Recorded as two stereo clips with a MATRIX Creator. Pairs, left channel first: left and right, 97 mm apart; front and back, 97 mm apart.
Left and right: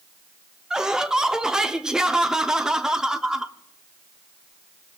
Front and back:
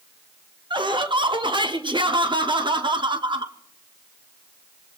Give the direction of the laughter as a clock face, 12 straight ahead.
6 o'clock.